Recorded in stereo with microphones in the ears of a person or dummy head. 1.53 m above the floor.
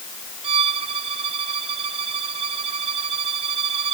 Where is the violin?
30° right (ahead or behind).